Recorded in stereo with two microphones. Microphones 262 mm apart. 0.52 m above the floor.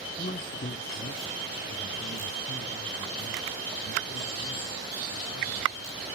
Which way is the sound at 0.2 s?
30° left (ahead or behind).